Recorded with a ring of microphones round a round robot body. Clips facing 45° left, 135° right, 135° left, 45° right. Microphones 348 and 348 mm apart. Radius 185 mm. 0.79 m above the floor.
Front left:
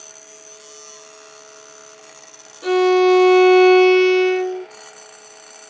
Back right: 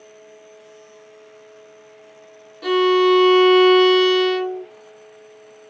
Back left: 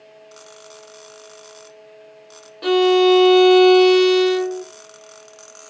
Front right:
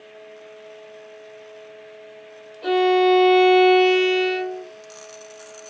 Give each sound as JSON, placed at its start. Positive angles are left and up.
{"t": 2.6, "sound": "a violin", "azimuth_deg": 150, "distance_m": 0.6}